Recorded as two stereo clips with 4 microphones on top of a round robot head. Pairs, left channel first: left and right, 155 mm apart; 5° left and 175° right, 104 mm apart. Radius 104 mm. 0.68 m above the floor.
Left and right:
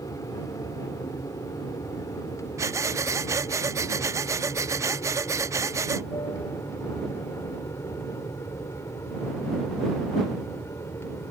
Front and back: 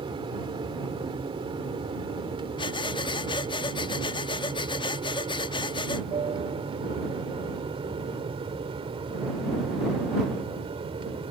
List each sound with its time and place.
0.0 s an aircraft: 160° left; by 11.3 s 165° left
2.6 s breathing: 25° right